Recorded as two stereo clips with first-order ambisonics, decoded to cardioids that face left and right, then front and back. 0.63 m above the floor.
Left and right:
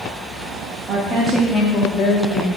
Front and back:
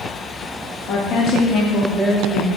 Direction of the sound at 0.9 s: 35° right.